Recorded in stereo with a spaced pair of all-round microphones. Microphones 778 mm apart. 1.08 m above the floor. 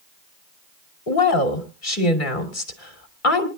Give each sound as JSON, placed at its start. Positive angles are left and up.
{"t": 1.1, "sound": "a woman speaking", "side_deg": 70, "distance_m": 3.0}